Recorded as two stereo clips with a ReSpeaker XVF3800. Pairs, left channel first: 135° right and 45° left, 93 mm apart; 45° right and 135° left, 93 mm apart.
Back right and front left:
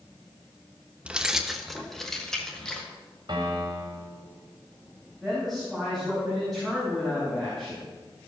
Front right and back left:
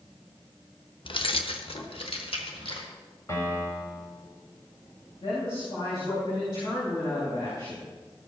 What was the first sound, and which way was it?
Keys jangling, 30° right.